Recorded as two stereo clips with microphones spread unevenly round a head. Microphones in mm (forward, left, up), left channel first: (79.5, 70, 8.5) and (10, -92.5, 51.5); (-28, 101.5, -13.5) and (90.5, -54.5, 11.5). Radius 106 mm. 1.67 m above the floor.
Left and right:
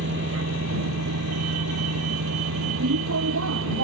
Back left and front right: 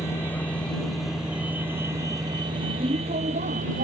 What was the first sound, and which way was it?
A vehicle, 155° right.